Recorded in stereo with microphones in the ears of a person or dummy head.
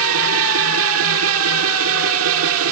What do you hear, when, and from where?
0.0 s a machine running: 80° right